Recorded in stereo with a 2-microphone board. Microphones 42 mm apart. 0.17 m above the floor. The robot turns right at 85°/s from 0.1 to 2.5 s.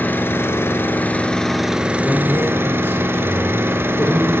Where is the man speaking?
40° left, 2 m; by 4.3 s 85° left, 2 m.